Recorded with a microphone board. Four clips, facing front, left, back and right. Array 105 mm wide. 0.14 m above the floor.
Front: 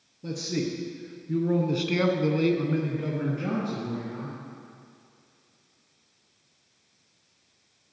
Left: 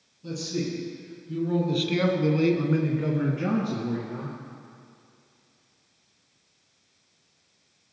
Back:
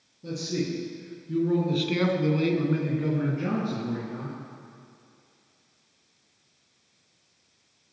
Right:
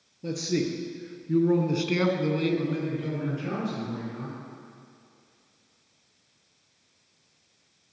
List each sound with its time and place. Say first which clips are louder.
0.2 s a man speaking: right 3 dB, even; 75° right, 2 m; by 4.4 s 100° left, 2.5 m